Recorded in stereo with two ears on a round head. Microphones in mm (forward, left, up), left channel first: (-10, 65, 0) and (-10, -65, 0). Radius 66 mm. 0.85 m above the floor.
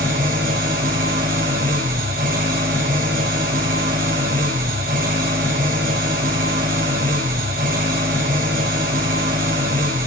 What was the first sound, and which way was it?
An engine running, 65° right (ahead or behind).